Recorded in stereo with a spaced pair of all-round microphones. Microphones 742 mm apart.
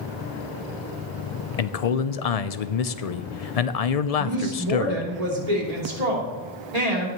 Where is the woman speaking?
55° right (ahead or behind), 3 m.